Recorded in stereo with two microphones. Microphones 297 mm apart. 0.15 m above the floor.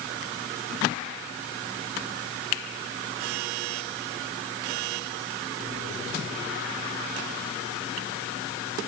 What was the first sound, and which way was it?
Only background noise.